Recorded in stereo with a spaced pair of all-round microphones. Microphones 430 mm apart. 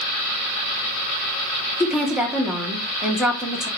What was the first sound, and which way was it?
A woman speaking, centre (ahead or behind).